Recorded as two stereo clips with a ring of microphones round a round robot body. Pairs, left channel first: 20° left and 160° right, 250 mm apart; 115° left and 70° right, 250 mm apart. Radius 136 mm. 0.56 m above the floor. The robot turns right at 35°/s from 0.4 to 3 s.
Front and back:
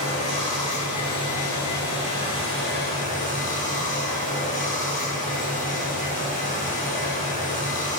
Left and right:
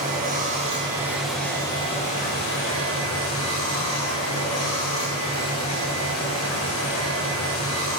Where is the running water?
10° right, 2.5 m; by 8.0 s 80° left, 2.5 m.